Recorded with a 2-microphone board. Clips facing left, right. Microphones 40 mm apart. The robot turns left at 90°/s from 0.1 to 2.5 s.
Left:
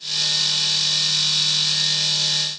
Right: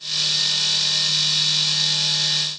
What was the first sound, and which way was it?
Only background noise.